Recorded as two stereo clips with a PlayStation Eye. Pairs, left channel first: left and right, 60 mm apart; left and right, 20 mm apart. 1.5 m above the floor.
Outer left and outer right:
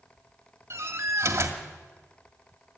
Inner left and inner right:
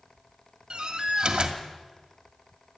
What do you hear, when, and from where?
0.7 s a door slam: 50° right (ahead or behind), 2 m